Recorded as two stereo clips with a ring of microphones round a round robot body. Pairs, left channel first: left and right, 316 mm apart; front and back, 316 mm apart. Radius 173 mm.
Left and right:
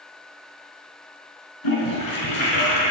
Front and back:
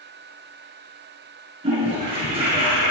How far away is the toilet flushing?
About 5 m.